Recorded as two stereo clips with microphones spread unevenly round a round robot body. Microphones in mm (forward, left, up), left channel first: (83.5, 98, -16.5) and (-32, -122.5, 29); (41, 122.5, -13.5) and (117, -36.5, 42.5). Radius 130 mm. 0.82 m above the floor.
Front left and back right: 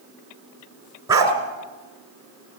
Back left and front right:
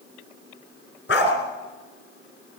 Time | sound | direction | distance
1.1 | a dog barking | 170° left | 2.5 m